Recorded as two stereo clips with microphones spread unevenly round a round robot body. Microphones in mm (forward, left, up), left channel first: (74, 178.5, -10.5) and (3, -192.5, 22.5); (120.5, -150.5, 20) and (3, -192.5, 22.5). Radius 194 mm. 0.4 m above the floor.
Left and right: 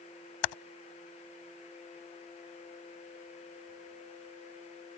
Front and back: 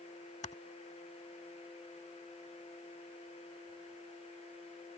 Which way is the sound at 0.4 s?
75° left.